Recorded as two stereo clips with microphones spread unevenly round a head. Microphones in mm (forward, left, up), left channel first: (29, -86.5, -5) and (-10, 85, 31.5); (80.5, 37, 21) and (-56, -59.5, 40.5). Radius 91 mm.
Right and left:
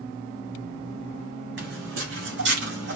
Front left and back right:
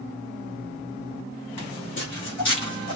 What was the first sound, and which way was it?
Footsteps, 100° left.